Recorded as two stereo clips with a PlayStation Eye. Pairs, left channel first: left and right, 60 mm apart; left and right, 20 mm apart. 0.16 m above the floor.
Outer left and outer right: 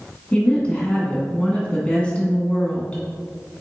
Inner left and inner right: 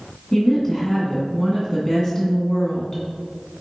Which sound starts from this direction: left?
A woman speaking, at 0.3 s.